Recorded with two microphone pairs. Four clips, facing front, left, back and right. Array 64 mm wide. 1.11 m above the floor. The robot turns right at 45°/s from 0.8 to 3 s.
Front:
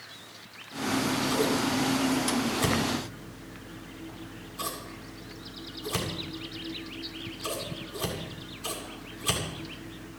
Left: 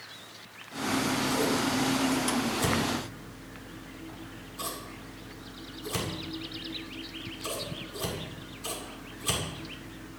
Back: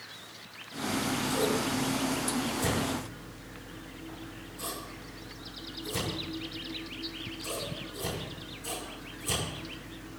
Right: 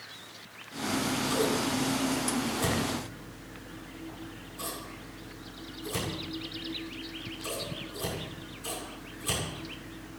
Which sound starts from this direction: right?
Scissors, at 0.8 s.